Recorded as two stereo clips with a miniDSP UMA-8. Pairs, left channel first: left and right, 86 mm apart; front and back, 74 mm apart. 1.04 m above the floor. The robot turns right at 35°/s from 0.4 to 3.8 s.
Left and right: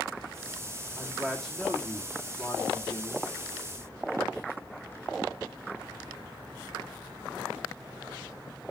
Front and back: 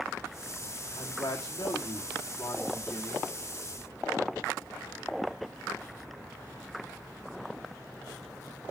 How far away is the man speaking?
About 1.9 m.